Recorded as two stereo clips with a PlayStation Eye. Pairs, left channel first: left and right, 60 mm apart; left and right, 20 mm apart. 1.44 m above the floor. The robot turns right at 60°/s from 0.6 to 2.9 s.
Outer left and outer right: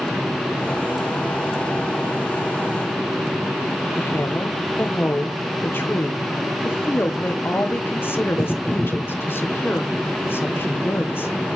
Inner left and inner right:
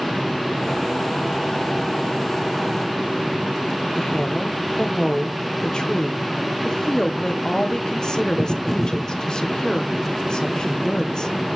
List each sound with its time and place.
4.0 s a woman speaking: 35° left (ahead or behind), 1.1 m